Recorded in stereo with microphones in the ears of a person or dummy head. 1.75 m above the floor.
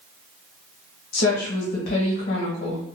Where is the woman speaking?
50° left (ahead or behind), 1.2 m.